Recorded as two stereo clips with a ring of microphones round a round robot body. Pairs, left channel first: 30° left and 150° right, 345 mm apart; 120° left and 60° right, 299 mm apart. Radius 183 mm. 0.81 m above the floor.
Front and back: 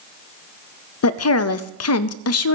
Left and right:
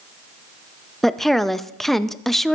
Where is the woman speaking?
30° left, 0.8 m.